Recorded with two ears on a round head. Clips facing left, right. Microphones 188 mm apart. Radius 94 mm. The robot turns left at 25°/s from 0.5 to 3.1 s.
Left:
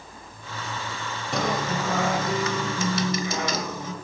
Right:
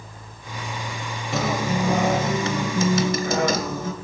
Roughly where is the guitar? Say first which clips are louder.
Right 3 dB; ahead.